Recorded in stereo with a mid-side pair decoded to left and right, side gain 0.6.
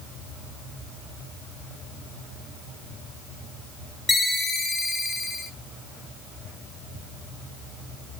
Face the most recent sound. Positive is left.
turn(degrees=15)